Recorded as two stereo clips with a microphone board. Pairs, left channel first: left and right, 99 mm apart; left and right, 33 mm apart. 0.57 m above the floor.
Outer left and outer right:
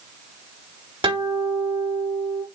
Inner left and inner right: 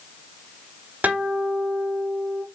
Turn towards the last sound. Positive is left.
turn(degrees=-55)  # may be behind; listen again after turning